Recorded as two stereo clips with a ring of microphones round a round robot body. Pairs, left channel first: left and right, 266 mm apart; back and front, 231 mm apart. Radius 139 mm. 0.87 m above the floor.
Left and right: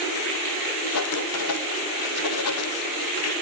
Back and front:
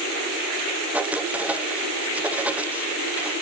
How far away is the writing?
About 1.8 m.